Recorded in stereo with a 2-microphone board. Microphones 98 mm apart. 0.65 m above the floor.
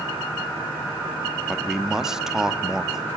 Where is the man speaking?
5° right (ahead or behind), 1.4 m.